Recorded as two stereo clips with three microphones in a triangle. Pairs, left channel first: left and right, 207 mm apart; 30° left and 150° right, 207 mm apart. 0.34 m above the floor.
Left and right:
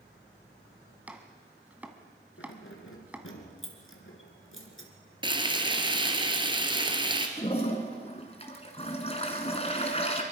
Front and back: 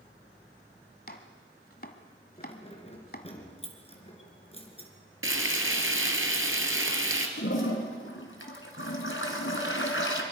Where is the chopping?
10° right, 1.6 m.